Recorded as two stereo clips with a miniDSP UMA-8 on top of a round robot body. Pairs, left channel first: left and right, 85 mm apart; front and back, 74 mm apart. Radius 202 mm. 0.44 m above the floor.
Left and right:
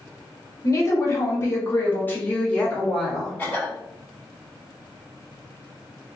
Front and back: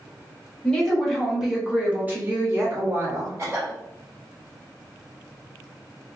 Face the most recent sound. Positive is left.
turn(degrees=150)